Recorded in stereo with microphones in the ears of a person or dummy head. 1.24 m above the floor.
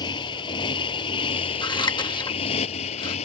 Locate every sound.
0.0 s a motorcycle: 25° left (ahead or behind); by 3.2 s 40° left (ahead or behind)
1.6 s scissors: 20° left (ahead or behind)